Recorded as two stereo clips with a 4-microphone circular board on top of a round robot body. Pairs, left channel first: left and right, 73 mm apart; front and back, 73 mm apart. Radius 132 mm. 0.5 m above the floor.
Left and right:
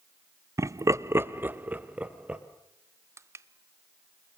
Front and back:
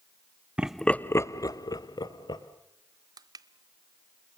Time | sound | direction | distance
0.6 | laughter | 110° right | 0.8 m
3.2 | crushing | 145° right | 0.8 m